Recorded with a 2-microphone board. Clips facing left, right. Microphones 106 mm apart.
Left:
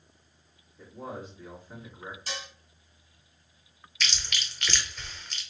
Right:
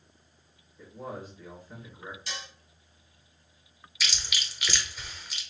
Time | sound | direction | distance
0.8 | a man speaking | 25° left (ahead or behind) | 2.5 m
2.3 | dishes clattering | 40° left (ahead or behind) | 2 m
4.0 | chewing | 5° right (ahead or behind) | 0.8 m